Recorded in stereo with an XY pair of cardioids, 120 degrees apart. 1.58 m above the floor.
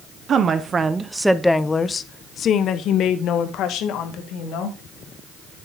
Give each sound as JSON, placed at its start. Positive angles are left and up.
{"t": 0.3, "sound": "a woman speaking", "azimuth_deg": -45, "distance_m": 1.2}